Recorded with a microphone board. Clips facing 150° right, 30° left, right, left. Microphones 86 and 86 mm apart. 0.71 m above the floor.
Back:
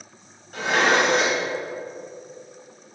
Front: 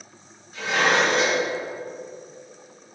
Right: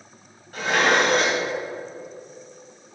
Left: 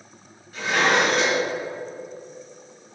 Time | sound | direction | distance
0.5 | dishes clattering | 125° right | 2.5 m